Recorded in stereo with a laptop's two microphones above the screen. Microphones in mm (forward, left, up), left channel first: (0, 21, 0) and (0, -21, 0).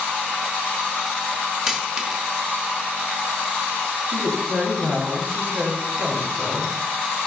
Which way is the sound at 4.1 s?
50° right (ahead or behind).